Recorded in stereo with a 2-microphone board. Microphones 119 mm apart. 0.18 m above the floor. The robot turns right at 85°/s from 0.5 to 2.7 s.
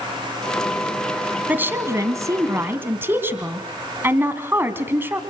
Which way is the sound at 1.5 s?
15° right (ahead or behind).